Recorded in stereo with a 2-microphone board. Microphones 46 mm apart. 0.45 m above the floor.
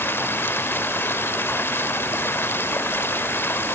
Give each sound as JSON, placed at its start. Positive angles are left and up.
{"t": 0.0, "sound": "running water", "side_deg": 55, "distance_m": 0.9}